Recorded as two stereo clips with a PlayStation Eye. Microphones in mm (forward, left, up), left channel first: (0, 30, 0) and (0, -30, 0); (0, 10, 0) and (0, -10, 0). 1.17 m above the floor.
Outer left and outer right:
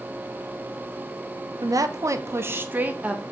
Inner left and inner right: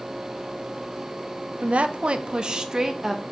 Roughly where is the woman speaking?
Right.